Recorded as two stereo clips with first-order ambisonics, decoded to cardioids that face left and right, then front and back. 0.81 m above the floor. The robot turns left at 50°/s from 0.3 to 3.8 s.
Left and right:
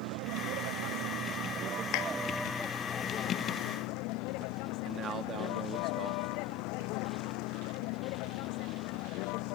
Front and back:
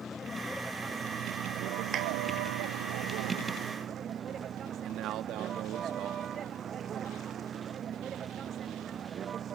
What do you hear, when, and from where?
0.0 s a vehicle: 70° right; by 9.6 s 115° left
1.9 s a clap: 120° left; by 2.1 s 110° left
4.8 s a man speaking: 145° right